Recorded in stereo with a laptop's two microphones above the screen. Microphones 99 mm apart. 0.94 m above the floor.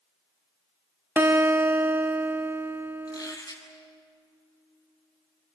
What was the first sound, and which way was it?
A guitar, 20° right (ahead or behind).